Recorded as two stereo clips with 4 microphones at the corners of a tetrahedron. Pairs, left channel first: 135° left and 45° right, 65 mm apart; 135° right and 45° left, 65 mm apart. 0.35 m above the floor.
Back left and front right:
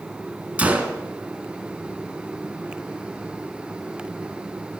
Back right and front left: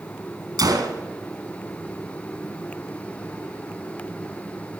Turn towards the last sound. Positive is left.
turn(degrees=25)